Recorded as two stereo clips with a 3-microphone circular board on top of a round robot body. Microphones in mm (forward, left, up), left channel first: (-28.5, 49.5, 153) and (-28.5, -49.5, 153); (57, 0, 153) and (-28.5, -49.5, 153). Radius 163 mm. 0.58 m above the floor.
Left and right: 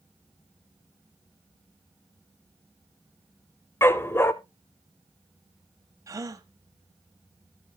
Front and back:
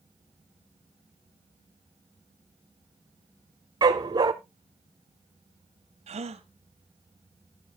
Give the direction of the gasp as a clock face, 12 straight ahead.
5 o'clock.